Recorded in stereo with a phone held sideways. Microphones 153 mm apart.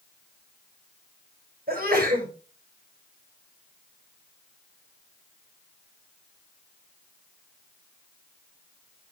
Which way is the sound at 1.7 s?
75° right (ahead or behind).